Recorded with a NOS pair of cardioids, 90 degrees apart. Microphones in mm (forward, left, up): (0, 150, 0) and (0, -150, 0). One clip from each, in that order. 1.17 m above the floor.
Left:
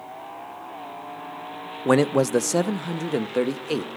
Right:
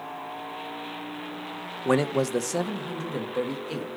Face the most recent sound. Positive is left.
turn(degrees=50)